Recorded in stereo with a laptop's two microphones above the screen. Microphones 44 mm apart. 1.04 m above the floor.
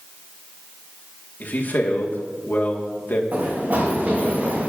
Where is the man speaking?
50° left (ahead or behind), 1.6 m.